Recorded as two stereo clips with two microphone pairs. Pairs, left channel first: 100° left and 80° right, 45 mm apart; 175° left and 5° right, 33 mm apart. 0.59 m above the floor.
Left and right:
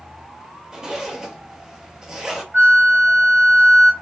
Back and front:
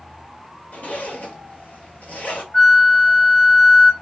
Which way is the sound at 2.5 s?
125° right.